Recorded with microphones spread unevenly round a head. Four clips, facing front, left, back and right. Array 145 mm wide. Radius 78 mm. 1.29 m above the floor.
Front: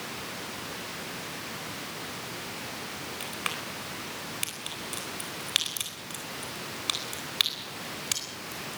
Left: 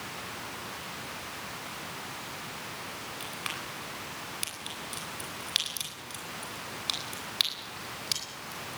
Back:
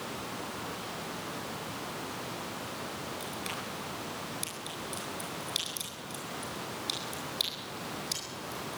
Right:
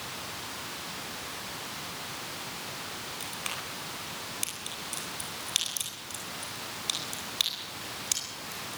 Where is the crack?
10° left, 10 m.